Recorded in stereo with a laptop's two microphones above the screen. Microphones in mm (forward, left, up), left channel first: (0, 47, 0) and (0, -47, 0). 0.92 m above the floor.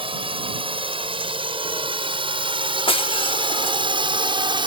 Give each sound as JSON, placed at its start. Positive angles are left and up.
{"t": 0.0, "sound": "a drone", "side_deg": -70}
{"t": 2.9, "sound": "breaking glass", "side_deg": 75}